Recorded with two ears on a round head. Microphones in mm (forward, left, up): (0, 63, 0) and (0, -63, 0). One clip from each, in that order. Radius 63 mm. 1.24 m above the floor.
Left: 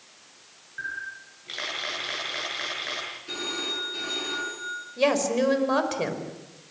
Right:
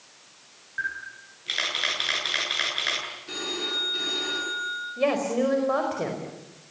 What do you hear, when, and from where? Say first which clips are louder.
0.8 s a camera shutter: right 2 dB; 60° right (ahead or behind), 8.5 m
3.3 s a phone ringing: right 1 dB; centre (ahead or behind), 9.5 m
5.0 s a woman speaking: left 2 dB; 85° left, 5 m